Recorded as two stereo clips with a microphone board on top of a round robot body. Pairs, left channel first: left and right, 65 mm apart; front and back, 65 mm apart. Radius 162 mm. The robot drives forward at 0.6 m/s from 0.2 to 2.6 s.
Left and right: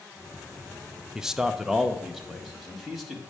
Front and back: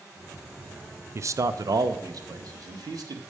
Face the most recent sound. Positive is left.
turn(degrees=-175)